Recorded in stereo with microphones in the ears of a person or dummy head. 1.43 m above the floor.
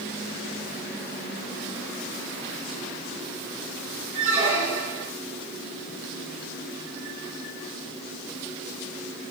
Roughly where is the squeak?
Left.